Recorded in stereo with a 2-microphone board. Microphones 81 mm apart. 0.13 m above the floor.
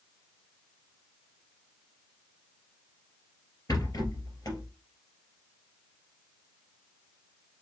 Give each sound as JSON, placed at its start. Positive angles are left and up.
{"t": 3.7, "sound": "a rattle", "side_deg": 45, "distance_m": 3.0}